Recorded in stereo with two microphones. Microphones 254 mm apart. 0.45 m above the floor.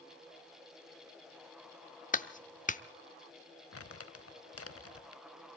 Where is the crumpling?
65° left (ahead or behind), 0.6 m.